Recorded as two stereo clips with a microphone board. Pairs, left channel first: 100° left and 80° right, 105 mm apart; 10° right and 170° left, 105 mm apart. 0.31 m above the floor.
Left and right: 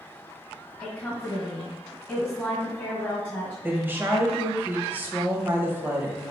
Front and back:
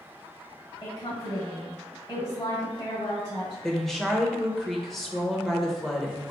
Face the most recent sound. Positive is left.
turn(degrees=-90)